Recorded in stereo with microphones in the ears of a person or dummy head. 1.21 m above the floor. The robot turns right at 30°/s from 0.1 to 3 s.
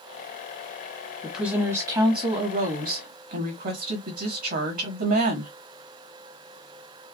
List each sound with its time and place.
1.2 s a woman speaking: straight behind, 1.3 m; by 5.5 s 125° right, 1.3 m